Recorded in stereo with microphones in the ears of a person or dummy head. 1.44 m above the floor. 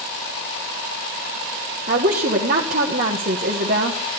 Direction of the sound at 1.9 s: 50° right (ahead or behind).